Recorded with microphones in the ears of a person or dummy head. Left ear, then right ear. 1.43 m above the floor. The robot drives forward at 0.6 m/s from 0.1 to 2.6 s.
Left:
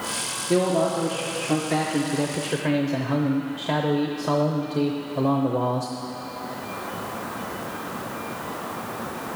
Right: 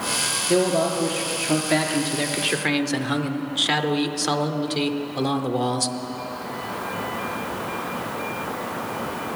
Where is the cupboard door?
I don't hear a cupboard door.